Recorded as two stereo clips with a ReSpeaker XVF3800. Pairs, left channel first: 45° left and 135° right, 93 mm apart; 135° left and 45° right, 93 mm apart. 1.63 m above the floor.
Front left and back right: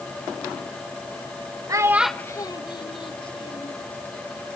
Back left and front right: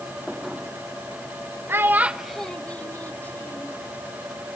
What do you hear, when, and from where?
1.7 s a child speaking: 100° right, 0.8 m; by 3.7 s 65° left, 2.5 m